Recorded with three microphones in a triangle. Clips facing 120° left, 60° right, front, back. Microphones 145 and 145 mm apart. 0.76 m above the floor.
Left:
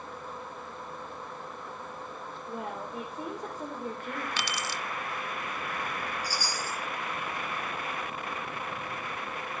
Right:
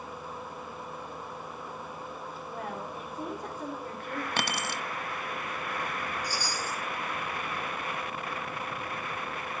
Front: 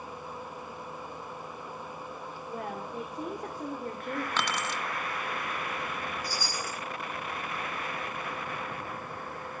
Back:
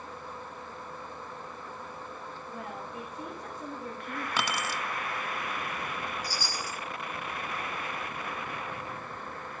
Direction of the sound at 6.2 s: 40° left.